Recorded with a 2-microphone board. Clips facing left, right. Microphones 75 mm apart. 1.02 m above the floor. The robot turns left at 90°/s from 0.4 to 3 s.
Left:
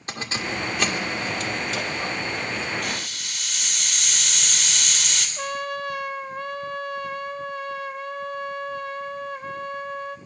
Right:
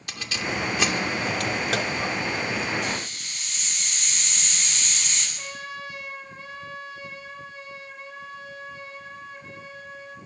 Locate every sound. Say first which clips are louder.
0.1 s keys jangling: left 1 dB; 35° left (ahead or behind), 2.5 m; by 2.7 s 5° right (ahead or behind), 2.5 m
2.8 s a hiss: right 1 dB; 65° left (ahead or behind), 3.5 m; by 5.3 s 80° left, 3.5 m
5.4 s a trumpet: left 8 dB; 65° left (ahead or behind), 1.2 m